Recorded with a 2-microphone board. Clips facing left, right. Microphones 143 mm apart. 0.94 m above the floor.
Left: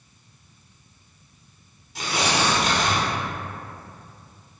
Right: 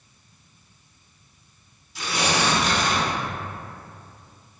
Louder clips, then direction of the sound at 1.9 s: Even; 55° left (ahead or behind).